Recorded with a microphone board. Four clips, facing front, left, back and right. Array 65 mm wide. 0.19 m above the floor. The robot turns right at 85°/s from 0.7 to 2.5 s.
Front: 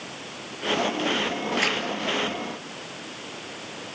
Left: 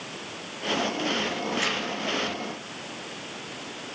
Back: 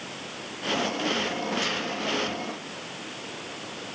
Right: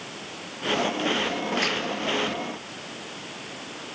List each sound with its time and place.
1.6 s tearing paper: 20° right, 3.5 m; by 1.8 s straight ahead, 3.5 m